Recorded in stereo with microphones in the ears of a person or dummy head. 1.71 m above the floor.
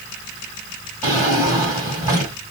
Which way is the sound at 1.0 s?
20° right (ahead or behind).